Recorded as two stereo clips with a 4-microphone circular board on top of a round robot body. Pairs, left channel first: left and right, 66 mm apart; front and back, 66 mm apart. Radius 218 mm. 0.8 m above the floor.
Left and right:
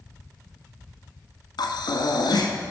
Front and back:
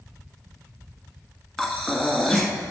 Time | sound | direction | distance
1.6 | breathing | 85° left | 1.2 m